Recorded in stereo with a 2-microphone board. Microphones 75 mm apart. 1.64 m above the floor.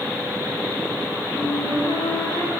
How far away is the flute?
About 6.5 m.